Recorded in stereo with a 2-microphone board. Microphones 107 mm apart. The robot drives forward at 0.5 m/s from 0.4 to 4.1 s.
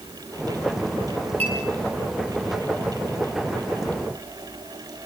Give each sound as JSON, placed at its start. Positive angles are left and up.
{"t": 1.4, "sound": "a clink", "side_deg": -70, "distance_m": 9.0}